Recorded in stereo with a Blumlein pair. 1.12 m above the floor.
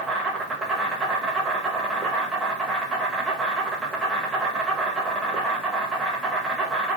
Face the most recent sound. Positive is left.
turn(degrees=-10)